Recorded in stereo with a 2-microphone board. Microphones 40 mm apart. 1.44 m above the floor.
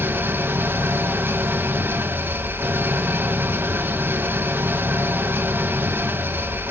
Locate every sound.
0.0 s an engine running: 55° right (ahead or behind), 1.2 m